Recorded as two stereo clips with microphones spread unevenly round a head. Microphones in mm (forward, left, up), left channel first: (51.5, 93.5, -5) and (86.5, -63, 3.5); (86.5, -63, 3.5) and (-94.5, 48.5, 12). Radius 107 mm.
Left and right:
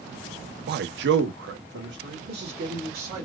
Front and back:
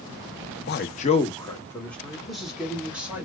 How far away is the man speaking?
About 0.6 m.